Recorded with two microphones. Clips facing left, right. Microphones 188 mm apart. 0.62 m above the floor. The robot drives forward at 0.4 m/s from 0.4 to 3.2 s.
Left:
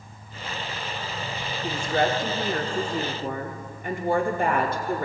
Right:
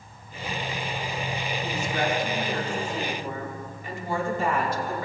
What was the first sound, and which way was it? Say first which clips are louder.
A woman speaking: left 4 dB; 55° left (ahead or behind).